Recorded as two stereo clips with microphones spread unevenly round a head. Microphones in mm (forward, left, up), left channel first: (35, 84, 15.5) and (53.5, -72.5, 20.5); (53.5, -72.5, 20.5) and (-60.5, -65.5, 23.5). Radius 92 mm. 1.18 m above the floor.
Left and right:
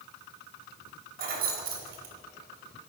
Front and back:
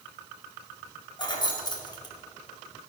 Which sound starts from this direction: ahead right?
Keys jangling, at 1.2 s.